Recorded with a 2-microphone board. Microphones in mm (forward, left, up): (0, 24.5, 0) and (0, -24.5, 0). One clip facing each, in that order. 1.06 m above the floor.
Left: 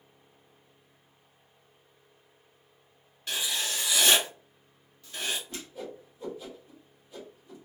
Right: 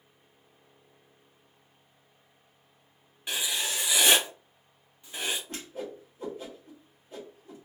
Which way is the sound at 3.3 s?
20° right (ahead or behind).